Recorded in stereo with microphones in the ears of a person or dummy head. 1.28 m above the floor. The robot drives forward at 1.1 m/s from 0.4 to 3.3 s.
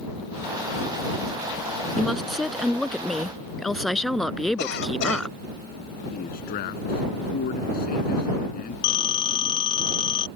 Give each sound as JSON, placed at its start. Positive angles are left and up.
{"t": 2.0, "sound": "a woman speaking", "side_deg": 0}
{"t": 4.6, "sound": "a cough", "side_deg": 65}
{"t": 6.1, "sound": "a man speaking", "side_deg": 50}
{"t": 8.8, "sound": "a phone ringing", "side_deg": 30}